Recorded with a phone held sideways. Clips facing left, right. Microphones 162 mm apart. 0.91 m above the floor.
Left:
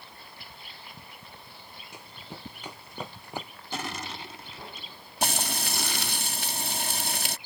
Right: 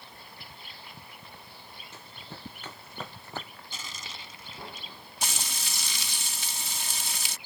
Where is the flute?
No flute in this recording.